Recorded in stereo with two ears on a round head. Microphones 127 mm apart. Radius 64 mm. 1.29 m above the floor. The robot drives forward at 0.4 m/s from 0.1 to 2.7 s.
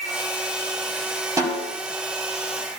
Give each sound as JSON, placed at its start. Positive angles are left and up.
{"t": 1.4, "sound": "a snare drum", "side_deg": -20, "distance_m": 2.5}